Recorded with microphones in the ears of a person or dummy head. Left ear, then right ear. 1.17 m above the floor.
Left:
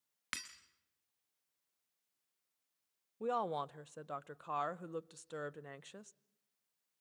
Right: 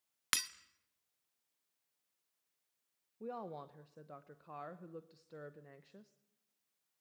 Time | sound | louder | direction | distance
0.3 | breaking glass | right 7 dB | 15° right (ahead or behind) | 0.6 m
3.2 | a woman speaking | left 9 dB | 45° left (ahead or behind) | 0.6 m